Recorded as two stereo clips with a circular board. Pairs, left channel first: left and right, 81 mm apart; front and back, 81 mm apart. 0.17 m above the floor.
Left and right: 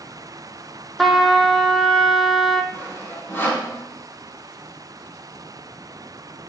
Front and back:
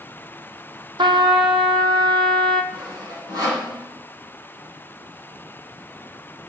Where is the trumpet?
Straight behind, 1.0 m.